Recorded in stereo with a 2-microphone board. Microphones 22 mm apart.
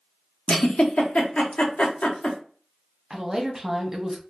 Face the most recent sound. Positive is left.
turn(degrees=-25)  # may be behind; listen again after turning